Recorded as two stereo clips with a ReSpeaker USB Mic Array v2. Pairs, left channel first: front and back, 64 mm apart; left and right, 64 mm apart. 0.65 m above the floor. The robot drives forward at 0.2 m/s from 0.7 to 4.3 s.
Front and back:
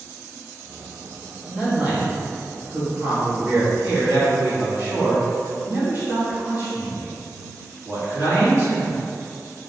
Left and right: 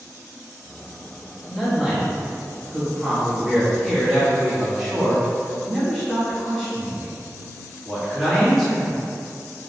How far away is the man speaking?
About 1.1 m.